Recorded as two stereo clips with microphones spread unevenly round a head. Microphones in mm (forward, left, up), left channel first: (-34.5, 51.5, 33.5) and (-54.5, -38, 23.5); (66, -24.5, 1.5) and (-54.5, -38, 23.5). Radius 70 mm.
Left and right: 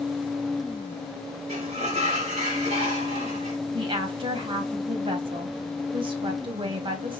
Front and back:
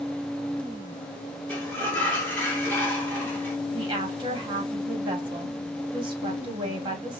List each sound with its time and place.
1.5 s a sliding door: 75° right, 2 m
3.7 s a woman speaking: 125° right, 1.9 m